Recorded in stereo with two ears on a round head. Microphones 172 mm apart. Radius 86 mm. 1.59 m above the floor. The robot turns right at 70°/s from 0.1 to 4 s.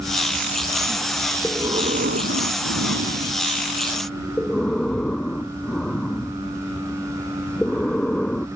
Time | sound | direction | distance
1.4 | breathing | 175° right | ?